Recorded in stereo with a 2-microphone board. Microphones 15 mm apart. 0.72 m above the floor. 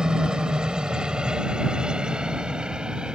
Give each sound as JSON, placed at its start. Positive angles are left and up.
{"t": 0.0, "sound": "a helicopter", "side_deg": -60}